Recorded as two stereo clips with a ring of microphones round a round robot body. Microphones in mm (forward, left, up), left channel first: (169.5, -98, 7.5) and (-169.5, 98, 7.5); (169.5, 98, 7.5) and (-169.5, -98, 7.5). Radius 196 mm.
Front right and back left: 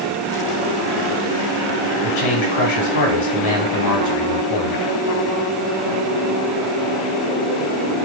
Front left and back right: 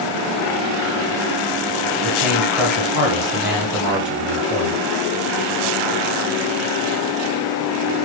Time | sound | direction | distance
2.0 | a man speaking | 60° right | 1.5 m